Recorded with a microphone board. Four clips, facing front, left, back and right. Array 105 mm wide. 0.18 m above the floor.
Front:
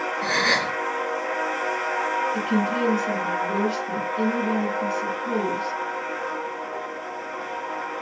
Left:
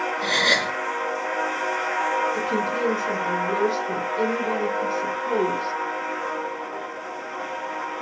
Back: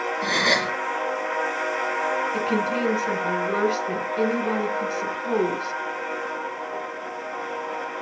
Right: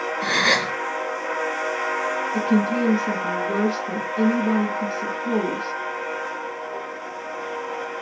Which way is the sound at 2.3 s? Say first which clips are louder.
Right 4 dB, even; 170° right.